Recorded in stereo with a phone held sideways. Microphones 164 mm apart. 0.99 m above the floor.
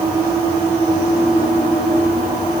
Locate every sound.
Only background noise.